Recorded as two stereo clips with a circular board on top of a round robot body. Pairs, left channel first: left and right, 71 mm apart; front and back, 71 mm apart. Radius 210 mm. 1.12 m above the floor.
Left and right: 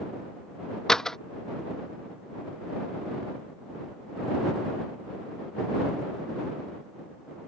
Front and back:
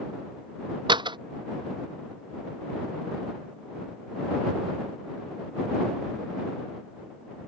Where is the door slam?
170° left.